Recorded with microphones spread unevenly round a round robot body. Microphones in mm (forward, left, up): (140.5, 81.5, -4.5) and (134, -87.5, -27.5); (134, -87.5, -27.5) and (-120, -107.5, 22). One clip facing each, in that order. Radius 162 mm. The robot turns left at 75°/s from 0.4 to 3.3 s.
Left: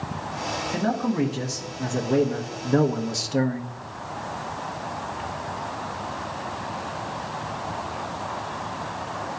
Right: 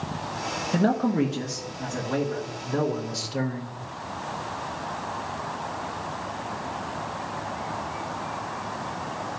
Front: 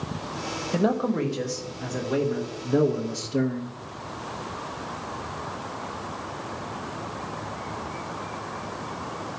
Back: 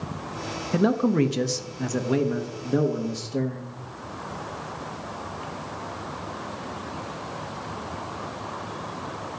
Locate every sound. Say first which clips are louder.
0.7 s a man speaking: right 2 dB, back 3 dB; 95° right, 0.8 m; by 3.7 s 70° left, 0.8 m